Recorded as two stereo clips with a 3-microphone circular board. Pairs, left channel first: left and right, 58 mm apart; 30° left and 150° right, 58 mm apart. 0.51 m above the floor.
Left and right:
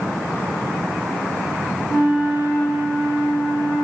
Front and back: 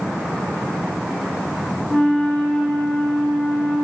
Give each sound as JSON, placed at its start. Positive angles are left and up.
{"t": 1.9, "sound": "a flute", "azimuth_deg": 125, "distance_m": 3.5}